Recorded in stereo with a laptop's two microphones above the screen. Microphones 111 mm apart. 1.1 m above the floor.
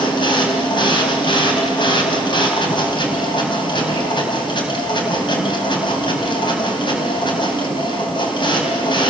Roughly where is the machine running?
Left.